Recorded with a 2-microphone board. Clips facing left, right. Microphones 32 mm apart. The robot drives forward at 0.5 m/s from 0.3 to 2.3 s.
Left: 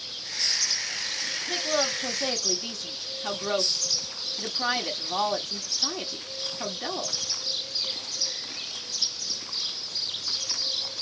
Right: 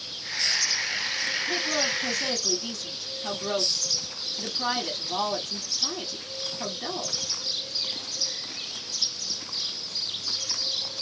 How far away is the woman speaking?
About 1.2 m.